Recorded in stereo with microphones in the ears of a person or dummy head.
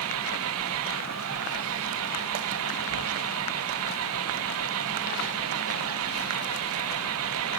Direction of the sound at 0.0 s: 75° right (ahead or behind).